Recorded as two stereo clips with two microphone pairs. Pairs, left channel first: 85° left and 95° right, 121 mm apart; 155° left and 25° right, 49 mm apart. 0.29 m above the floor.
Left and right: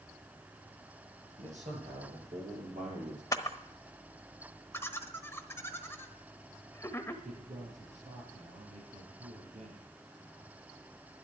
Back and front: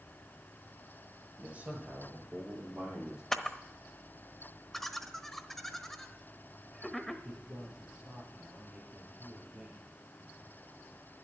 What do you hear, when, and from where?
1.4 s a man speaking: 90° right, 7.5 m; by 3.2 s 105° right, 8.5 m
3.3 s a camera shutter: 85° left, 1.1 m
4.7 s laughter: 75° left, 1.1 m
7.2 s a man speaking: 105° right, 6 m